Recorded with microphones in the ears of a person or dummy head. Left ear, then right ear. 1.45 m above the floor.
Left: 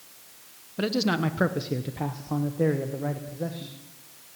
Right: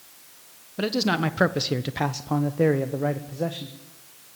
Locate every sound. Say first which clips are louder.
0.8 s a man speaking: right 2 dB; centre (ahead or behind), 1.2 m; by 3.8 s 65° right (ahead or behind), 1.8 m